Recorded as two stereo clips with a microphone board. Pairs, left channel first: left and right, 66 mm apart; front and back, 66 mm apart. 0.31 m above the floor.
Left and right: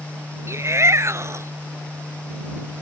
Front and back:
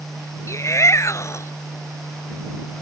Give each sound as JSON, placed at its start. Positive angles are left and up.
{"t": 0.5, "sound": "a shout", "azimuth_deg": -45}